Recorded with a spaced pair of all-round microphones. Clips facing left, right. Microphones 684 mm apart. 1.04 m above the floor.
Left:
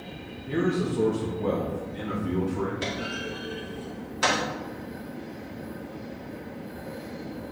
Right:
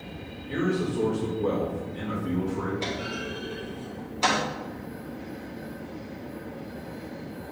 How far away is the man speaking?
About 1.3 m.